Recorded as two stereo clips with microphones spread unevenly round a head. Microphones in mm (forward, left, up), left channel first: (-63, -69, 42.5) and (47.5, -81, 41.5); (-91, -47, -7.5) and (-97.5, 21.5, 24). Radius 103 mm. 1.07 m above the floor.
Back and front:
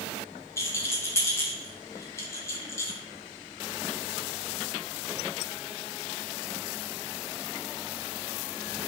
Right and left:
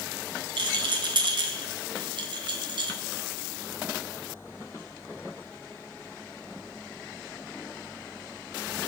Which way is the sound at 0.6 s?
110° left.